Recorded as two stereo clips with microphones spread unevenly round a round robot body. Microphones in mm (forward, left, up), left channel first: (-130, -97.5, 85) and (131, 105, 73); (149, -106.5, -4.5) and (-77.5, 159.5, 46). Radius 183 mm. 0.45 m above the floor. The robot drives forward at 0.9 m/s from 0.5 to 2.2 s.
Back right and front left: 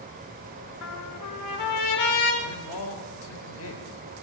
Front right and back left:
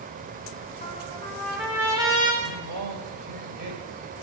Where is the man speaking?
Straight behind, 2.5 m.